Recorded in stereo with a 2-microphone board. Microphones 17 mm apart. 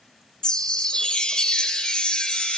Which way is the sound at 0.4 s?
55° left (ahead or behind).